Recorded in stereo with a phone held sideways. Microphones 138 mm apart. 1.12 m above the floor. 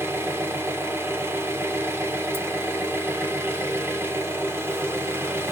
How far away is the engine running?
About 0.8 m.